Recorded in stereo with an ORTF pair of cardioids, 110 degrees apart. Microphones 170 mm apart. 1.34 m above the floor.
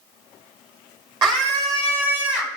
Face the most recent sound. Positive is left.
turn(degrees=0)